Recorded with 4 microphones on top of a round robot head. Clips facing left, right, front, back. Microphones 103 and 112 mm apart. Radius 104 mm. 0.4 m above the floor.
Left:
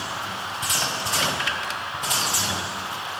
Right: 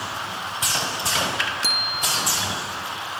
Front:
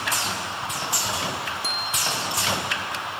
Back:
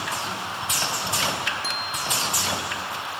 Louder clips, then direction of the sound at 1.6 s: Right 1 dB, front 1 dB; 80° right.